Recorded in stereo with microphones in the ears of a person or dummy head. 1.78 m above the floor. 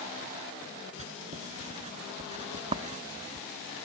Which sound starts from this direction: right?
Writing, at 1.0 s.